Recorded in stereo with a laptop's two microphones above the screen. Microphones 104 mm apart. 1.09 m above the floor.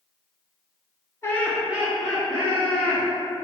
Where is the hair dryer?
No hair dryer in this recording.